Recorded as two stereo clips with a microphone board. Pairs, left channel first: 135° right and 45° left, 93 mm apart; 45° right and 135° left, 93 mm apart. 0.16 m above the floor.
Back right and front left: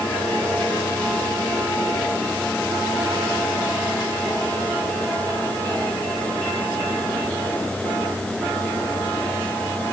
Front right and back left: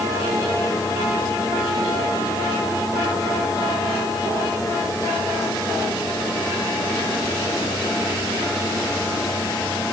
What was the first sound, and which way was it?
Only background noise.